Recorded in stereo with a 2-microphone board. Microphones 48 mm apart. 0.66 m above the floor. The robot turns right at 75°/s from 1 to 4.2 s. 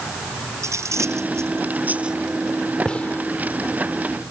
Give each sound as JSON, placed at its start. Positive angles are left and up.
{"t": 0.6, "sound": "cutlery clinking", "side_deg": -80}
{"t": 2.9, "sound": "a gunshot", "side_deg": 15}